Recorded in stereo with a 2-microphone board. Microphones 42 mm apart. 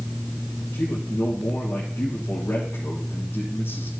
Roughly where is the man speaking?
Left.